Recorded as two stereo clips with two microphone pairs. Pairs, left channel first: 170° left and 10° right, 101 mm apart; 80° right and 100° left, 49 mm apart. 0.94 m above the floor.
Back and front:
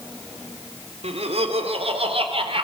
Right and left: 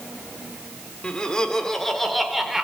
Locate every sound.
1.0 s laughter: 10° right, 3 m; by 2.6 s 15° left, 3.5 m